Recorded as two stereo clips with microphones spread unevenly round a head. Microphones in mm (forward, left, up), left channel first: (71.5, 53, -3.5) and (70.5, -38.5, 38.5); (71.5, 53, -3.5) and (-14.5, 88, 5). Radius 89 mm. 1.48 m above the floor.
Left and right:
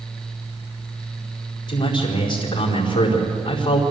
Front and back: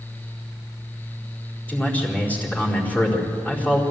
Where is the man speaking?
55° left, 4.5 m.